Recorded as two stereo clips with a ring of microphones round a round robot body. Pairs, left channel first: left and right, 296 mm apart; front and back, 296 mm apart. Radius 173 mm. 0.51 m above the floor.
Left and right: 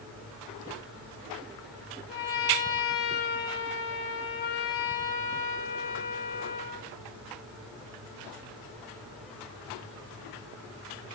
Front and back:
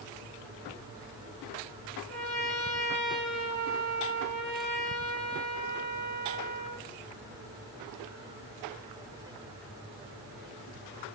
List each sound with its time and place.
2.1 s a trumpet: 90° left, 9.5 m